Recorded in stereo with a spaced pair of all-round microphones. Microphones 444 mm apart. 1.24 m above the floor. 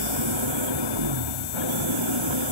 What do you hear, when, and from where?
0.0 s an engine running: 85° right